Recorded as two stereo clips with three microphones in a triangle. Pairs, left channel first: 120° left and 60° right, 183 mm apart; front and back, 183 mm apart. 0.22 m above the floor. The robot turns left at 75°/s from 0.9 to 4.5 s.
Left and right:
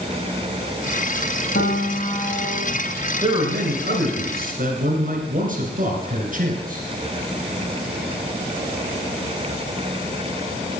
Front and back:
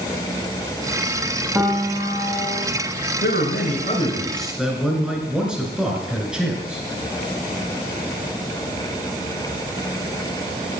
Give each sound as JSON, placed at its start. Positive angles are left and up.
{"t": 1.6, "sound": "a piano", "azimuth_deg": 100, "distance_m": 5.0}
{"t": 3.2, "sound": "a man speaking", "azimuth_deg": 5, "distance_m": 2.5}